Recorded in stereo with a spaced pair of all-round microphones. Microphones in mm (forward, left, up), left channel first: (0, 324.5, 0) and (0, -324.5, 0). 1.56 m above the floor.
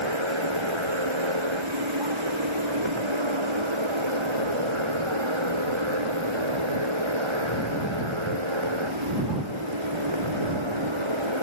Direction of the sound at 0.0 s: 45° right (ahead or behind).